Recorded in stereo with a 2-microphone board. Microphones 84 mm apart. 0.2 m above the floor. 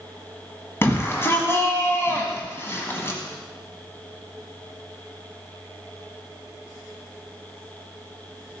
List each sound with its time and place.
0.8 s a shout: 30° left (ahead or behind), 1.4 m